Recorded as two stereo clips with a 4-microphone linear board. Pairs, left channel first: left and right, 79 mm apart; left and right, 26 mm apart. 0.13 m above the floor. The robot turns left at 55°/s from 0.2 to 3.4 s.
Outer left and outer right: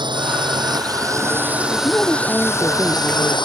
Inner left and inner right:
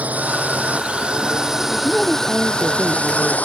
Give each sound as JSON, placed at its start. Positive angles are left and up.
{"t": 0.0, "sound": "a drone", "azimuth_deg": -85}
{"t": 1.7, "sound": "a woman speaking", "azimuth_deg": 40}